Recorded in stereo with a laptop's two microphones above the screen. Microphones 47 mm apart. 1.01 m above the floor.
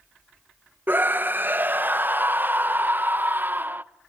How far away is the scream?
About 0.6 m.